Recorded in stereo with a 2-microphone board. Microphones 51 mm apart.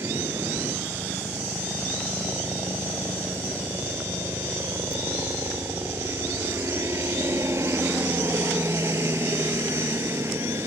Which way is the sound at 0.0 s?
60° right (ahead or behind).